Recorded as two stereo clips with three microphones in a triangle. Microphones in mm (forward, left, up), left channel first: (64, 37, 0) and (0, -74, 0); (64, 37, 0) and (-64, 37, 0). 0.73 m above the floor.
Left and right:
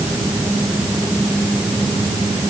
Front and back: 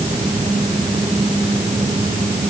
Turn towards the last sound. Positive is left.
No sound to turn to.